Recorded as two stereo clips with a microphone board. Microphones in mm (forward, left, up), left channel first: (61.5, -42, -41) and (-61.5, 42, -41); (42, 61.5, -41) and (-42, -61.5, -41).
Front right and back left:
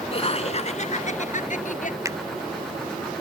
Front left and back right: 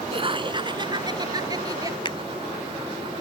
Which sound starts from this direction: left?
A finger snap, at 2.0 s.